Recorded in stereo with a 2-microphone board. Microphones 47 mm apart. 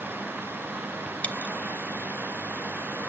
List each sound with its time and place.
1.2 s a dropped coin: 35° left (ahead or behind), 0.7 m